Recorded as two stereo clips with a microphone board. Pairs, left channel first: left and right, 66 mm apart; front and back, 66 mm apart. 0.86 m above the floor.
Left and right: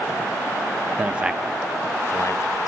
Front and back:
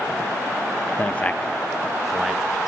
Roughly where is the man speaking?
Ahead right.